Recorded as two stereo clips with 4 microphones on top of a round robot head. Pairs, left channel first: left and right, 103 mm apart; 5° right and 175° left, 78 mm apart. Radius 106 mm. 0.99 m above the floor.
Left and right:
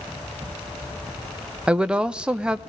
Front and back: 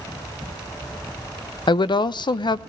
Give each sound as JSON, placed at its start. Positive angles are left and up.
{"t": 1.7, "sound": "a woman speaking", "azimuth_deg": -10, "distance_m": 0.5}